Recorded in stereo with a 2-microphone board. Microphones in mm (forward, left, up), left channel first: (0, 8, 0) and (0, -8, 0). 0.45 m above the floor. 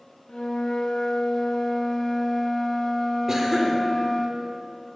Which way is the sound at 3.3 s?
30° right (ahead or behind).